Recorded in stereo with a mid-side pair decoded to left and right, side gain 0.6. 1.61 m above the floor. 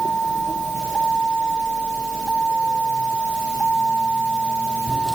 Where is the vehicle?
20° right; by 5.2 s 10° right.